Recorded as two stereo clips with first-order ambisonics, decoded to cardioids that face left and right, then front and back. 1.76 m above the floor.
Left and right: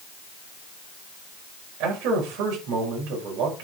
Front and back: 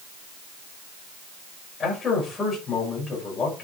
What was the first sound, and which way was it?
A man speaking, 70° right.